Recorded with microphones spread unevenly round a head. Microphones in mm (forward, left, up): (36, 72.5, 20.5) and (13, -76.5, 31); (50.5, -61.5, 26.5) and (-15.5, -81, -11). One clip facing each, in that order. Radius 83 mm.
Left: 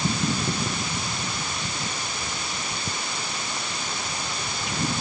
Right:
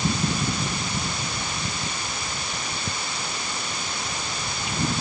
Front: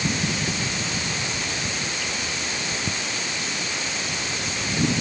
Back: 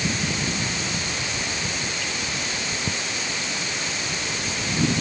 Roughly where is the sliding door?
No sliding door in this recording.